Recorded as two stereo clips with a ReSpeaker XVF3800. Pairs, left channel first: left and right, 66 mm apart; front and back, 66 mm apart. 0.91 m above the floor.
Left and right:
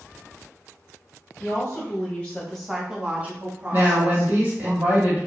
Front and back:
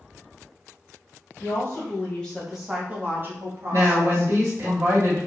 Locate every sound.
1.4 s a woman speaking: 45° left, 1.1 m; by 4.7 s 145° right, 2.0 m
3.7 s a woman speaking: 145° right, 1.6 m